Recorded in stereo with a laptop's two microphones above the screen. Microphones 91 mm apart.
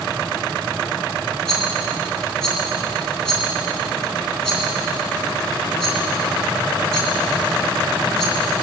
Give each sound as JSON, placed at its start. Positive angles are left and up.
{"t": 1.5, "sound": "a rattle", "side_deg": 5, "distance_m": 3.0}